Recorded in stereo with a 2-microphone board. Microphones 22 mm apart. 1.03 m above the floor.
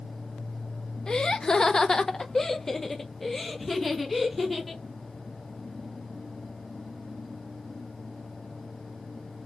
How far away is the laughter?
About 0.8 m.